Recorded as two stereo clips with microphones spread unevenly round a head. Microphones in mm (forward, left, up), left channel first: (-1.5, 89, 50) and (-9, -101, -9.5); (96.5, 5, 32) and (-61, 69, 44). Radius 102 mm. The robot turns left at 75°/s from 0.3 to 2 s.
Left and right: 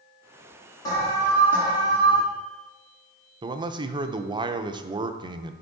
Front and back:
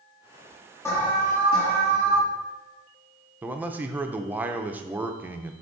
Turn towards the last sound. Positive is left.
turn(degrees=-120)